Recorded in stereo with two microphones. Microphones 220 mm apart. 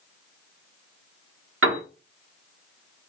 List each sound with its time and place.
1.6 s a piano: 70° right (ahead or behind), 0.7 m